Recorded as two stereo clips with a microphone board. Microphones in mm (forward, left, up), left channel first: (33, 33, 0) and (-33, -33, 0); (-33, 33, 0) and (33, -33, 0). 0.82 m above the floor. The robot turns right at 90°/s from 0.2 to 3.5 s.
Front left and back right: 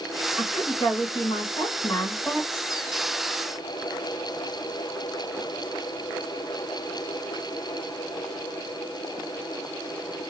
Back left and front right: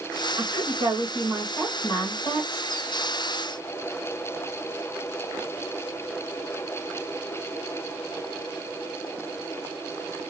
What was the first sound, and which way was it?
A woman speaking, 45° right.